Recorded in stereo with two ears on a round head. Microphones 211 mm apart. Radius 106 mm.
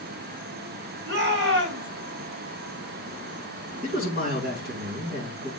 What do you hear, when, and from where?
1.1 s a shout: 50° right (ahead or behind), 2.5 m
3.8 s a man speaking: 40° right (ahead or behind), 3 m